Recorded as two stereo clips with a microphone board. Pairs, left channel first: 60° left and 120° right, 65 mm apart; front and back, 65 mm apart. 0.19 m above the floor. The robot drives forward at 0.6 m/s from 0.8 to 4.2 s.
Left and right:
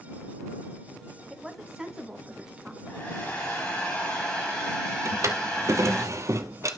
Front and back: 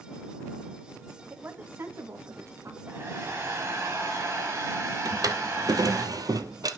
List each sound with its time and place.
1.3 s a woman speaking: 150° left, 1.5 m; by 2.8 s 165° left, 2 m
2.9 s a hair dryer: 120° left, 3.5 m; by 6.0 s 130° left, 4 m
5.0 s a drawer: 160° right, 1.2 m